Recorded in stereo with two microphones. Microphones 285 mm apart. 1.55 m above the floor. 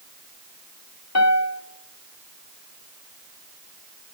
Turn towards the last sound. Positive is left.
turn(degrees=65)  # may be behind; listen again after turning